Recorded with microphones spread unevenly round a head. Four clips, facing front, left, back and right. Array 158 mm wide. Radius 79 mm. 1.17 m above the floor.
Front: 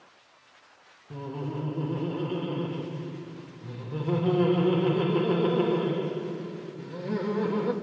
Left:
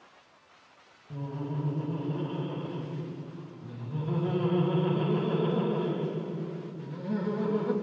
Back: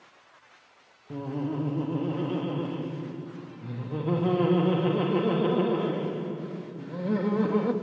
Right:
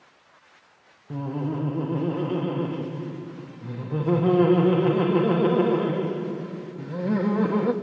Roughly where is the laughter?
Right.